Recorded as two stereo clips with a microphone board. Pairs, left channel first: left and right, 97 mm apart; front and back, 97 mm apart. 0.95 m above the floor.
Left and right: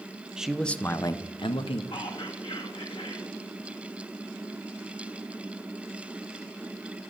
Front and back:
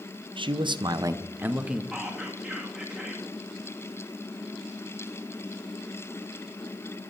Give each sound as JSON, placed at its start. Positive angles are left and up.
{"t": 0.4, "sound": "a man speaking", "azimuth_deg": -170, "distance_m": 0.5}
{"t": 1.9, "sound": "whispering", "azimuth_deg": 95, "distance_m": 1.3}